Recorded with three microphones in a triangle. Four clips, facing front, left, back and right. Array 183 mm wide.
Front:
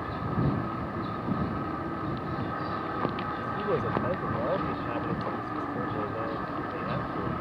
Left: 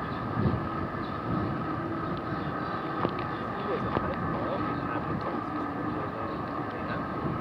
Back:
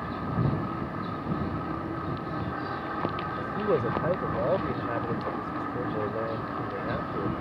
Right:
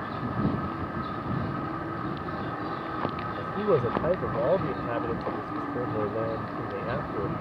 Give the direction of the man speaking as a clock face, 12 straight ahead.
4 o'clock.